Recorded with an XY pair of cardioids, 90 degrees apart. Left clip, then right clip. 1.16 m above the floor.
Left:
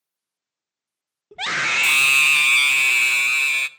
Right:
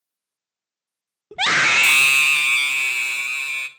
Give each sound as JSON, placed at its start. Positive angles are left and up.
{"t": 1.3, "sound": "a scream", "azimuth_deg": -55, "distance_m": 0.7}